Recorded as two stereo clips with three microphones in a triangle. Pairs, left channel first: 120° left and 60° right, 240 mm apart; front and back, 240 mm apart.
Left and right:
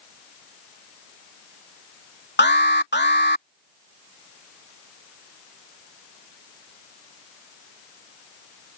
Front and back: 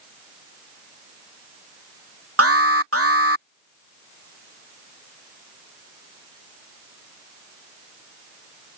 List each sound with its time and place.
2.4 s an alarm: 165° left